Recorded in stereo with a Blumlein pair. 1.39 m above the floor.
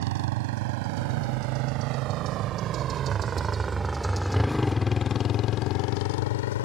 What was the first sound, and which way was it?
A motorcycle, 50° right.